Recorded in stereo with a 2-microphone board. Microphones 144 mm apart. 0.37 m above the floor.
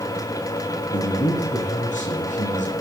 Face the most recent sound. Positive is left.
turn(degrees=60)  # may be behind; listen again after turning